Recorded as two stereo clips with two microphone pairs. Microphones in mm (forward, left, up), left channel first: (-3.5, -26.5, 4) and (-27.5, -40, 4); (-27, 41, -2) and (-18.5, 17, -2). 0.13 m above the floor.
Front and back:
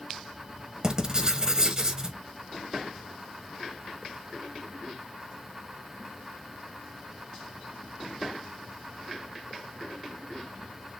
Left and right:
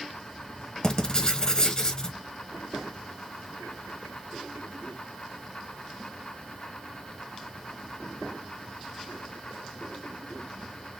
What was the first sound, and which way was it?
Writing, 160° left.